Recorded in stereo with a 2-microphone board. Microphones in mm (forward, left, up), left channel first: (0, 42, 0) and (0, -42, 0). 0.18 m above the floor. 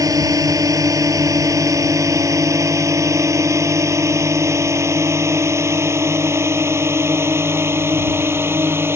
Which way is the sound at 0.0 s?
45° right (ahead or behind).